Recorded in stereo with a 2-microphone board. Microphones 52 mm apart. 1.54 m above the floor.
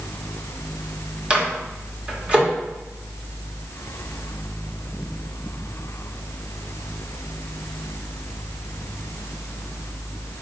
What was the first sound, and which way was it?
A microwave, 20° right (ahead or behind).